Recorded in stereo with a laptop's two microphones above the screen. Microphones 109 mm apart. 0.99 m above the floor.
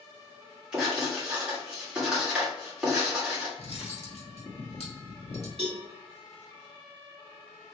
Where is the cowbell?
70° right (ahead or behind), 1.4 m.